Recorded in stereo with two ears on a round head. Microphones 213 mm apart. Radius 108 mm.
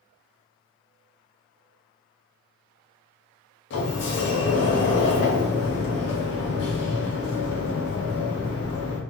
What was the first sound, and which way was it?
A sliding door, 55° left (ahead or behind).